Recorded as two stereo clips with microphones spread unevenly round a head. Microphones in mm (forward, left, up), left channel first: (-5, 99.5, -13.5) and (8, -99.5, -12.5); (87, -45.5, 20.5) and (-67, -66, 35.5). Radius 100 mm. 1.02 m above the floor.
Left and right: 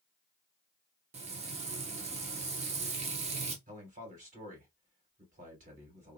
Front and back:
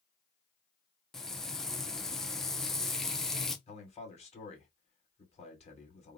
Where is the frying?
70° right, 0.6 m.